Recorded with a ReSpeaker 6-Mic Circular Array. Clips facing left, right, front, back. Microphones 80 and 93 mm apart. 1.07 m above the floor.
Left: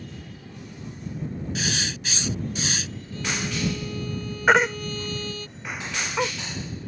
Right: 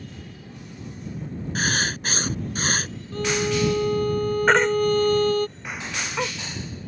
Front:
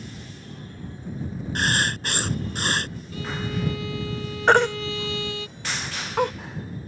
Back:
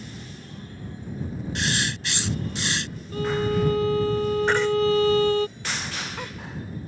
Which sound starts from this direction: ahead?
A baby crying, at 4.5 s.